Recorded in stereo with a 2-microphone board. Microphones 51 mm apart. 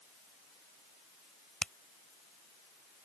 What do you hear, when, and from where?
1.6 s a finger snap: 20° left (ahead or behind)